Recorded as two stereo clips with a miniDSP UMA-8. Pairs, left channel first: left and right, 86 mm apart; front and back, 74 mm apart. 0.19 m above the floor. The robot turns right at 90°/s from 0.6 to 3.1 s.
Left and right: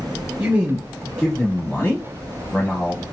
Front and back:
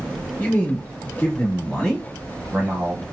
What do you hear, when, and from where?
0.4 s a man speaking: 40° right, 1.0 m; by 3.0 s straight behind, 1.0 m